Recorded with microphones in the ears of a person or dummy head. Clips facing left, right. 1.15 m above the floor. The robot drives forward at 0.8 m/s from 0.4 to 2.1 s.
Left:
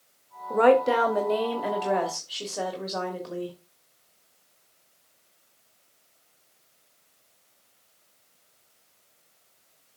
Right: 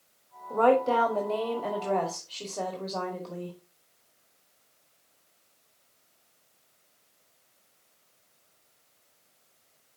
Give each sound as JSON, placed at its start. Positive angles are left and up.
{"t": 0.5, "sound": "a woman speaking", "side_deg": 30, "distance_m": 1.4}